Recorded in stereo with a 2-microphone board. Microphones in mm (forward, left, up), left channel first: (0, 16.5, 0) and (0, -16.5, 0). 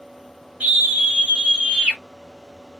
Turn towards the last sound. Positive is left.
turn(degrees=-10)  # may be behind; listen again after turning